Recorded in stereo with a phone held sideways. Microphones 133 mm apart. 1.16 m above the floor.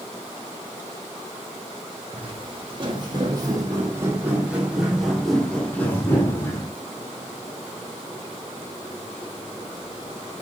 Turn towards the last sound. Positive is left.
turn(degrees=25)  # may be behind; listen again after turning